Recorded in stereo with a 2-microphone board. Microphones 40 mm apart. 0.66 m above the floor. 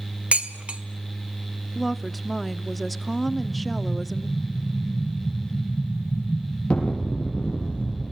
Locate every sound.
0.3 s dishes clattering: 35° right (ahead or behind), 1.6 m
1.8 s a woman speaking: centre (ahead or behind), 0.9 m
3.3 s an explosion: 30° left (ahead or behind), 6 m